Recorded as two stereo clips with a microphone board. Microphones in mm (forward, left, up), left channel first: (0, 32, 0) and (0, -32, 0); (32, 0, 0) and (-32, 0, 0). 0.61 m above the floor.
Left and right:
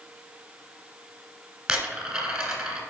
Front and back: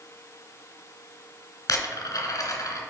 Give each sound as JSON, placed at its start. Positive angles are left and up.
{"t": 1.7, "sound": "a dropped coin", "azimuth_deg": -10, "distance_m": 1.8}